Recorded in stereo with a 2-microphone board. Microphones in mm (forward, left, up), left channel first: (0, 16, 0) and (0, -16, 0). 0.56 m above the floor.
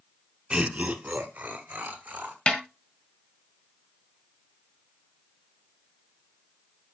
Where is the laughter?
30° right (ahead or behind), 1.1 m; by 2.4 s 65° right (ahead or behind), 2.5 m.